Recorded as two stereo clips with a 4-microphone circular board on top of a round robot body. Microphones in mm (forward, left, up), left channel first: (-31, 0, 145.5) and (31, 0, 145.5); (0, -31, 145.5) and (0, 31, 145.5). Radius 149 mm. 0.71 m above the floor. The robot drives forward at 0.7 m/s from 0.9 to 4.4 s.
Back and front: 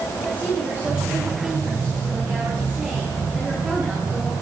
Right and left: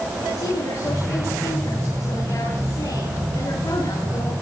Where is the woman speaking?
60° right, 9.5 m; by 4.3 s 75° right, 8.5 m.